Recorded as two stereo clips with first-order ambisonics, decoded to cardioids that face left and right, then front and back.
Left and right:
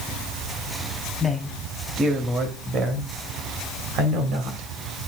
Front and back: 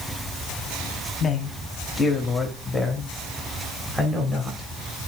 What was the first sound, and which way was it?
A man speaking, 15° left.